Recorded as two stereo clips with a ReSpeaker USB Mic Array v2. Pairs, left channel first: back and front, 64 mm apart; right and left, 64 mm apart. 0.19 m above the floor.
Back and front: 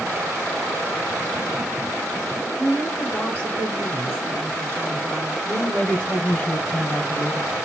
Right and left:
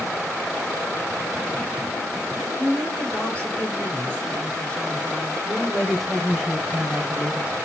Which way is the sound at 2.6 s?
145° right.